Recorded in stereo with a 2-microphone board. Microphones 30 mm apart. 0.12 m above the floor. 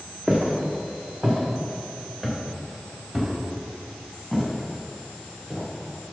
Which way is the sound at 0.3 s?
40° right (ahead or behind).